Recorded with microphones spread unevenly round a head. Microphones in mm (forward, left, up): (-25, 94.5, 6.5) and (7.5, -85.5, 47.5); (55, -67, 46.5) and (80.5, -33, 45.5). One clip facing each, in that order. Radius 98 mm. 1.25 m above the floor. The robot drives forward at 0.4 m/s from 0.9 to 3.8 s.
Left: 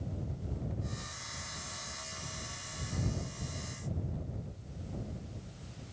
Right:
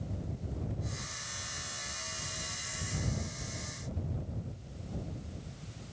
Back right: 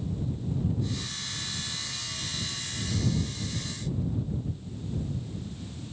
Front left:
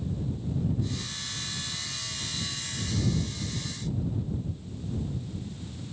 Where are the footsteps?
I don't hear footsteps.